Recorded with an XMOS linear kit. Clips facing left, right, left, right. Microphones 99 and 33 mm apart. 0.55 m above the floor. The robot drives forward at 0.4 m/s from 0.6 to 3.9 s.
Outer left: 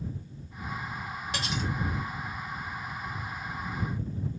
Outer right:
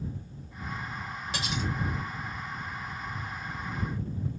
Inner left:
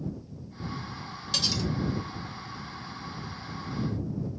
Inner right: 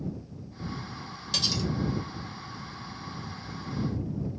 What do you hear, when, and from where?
1.3 s cutlery clinking: centre (ahead or behind), 1.4 m